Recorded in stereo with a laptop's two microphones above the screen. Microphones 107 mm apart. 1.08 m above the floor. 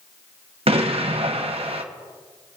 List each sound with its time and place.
0.7 s an explosion: 65° right (ahead or behind), 0.8 m